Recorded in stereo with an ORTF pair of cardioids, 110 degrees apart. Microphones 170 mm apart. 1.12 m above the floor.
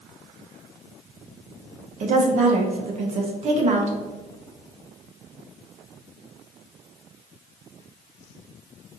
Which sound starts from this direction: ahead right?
A woman speaking, at 2.0 s.